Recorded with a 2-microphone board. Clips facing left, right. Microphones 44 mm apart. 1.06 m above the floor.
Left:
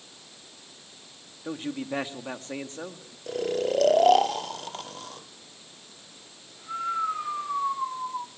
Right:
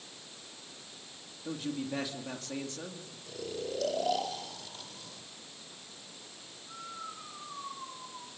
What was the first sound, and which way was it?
A man speaking, 35° left (ahead or behind).